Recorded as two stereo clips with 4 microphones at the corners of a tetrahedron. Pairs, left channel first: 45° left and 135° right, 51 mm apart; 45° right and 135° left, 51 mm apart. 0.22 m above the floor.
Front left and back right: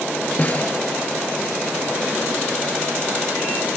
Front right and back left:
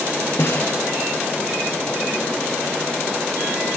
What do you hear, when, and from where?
0.4 s a snare drum: 10° right, 4.5 m